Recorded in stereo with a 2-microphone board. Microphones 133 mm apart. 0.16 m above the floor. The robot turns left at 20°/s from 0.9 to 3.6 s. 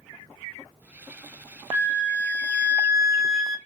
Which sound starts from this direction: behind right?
A flute, at 1.7 s.